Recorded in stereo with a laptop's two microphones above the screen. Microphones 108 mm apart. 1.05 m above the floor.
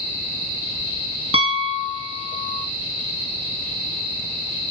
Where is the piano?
60° right (ahead or behind), 0.7 m.